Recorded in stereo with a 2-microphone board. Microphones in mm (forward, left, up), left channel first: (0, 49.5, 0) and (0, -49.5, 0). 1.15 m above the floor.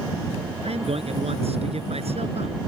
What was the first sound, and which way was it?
A man speaking, 90° right.